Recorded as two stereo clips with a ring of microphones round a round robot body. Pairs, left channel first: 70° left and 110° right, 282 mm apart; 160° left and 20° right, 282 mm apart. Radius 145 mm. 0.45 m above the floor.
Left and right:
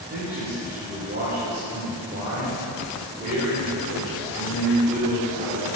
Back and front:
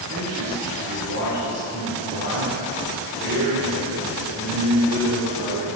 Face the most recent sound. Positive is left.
turn(degrees=-65)